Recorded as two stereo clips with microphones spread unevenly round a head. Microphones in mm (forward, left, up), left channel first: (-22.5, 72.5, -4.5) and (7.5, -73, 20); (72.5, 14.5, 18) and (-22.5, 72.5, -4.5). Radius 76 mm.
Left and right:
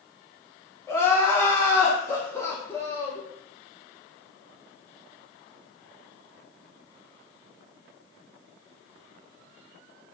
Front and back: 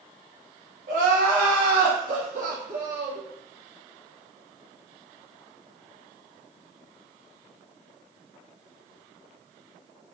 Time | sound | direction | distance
0.9 | crying | straight behind | 0.5 m